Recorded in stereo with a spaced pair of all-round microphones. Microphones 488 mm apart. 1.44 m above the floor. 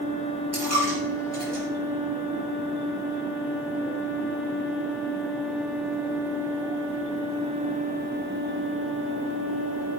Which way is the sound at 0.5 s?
30° right (ahead or behind).